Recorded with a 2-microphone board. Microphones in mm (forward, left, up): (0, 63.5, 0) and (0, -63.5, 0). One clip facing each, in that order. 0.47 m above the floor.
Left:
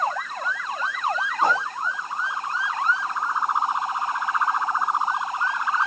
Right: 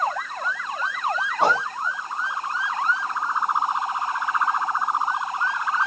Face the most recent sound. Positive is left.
turn(degrees=-80)